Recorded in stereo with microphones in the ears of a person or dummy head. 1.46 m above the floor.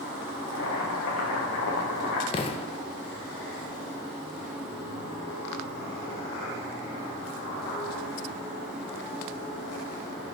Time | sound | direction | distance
0.5 | boiling | 65° left (ahead or behind) | 1.4 m
2.3 | an explosion | 30° left (ahead or behind) | 0.5 m